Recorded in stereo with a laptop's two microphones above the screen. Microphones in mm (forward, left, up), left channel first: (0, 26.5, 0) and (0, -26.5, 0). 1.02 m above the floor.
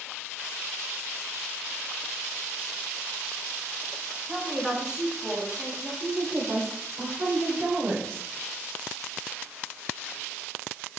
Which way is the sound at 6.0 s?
70° right (ahead or behind).